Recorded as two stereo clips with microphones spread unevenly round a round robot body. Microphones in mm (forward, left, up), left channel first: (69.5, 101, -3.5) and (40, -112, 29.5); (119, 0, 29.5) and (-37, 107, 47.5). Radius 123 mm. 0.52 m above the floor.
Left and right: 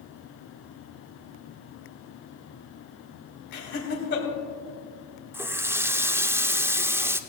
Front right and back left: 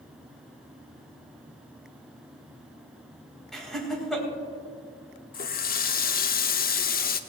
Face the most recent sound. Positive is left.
turn(degrees=-15)